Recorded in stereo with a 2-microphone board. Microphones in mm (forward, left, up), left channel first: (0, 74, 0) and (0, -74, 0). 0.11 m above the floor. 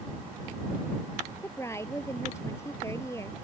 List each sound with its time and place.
1.4 s a woman speaking: 20° left (ahead or behind)